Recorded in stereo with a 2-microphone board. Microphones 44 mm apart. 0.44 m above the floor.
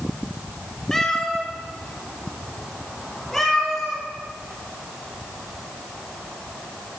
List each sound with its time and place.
0.9 s a cat meowing: 15° left (ahead or behind), 2 m; by 4.0 s 10° left (ahead or behind), 4.5 m